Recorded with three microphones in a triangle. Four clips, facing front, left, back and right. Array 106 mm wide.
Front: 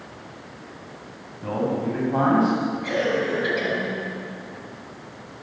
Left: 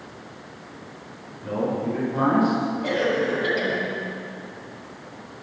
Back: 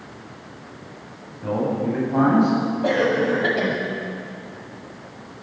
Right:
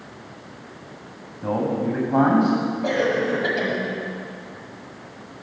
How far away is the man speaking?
About 9.5 m.